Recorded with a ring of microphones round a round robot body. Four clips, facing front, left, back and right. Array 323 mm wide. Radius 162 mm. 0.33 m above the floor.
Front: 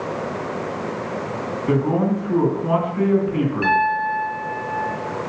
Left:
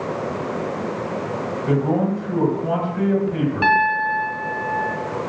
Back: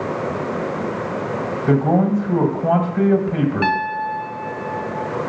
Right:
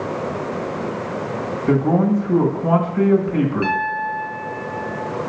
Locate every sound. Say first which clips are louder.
1.7 s a man speaking: right 4 dB, back 3 dB; 175° right, 1.9 m
3.6 s a piano: left 4 dB, front 2 dB; 135° left, 1.4 m